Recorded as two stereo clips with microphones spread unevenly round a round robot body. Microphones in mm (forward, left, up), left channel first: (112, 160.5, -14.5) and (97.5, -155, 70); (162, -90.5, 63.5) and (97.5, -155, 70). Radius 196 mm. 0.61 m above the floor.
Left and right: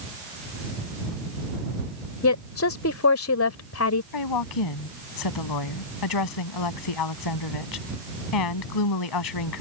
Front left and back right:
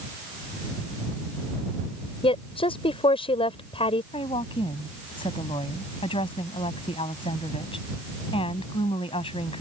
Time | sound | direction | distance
2.2 | a woman speaking | 50° left | ?
4.1 | a woman speaking | 90° left | ?